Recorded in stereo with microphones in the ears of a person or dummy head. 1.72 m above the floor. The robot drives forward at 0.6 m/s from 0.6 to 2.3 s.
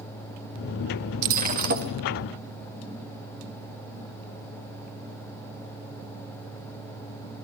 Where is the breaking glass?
50° right (ahead or behind), 1.7 m; by 1.9 s 55° right (ahead or behind), 1.6 m.